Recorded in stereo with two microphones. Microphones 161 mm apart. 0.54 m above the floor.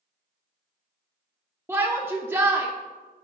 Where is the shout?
15° right (ahead or behind), 0.6 m.